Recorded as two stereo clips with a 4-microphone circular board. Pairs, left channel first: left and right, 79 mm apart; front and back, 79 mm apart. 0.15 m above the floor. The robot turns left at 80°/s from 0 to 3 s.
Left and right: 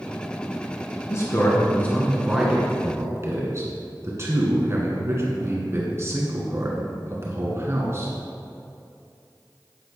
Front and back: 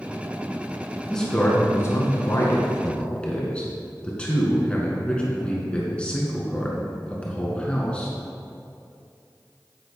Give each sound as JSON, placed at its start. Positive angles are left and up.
{"t": 1.1, "sound": "a man speaking", "azimuth_deg": 85, "distance_m": 1.8}